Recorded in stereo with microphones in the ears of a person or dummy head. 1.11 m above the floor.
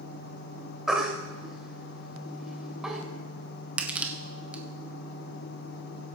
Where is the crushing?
5° right (ahead or behind), 0.7 m.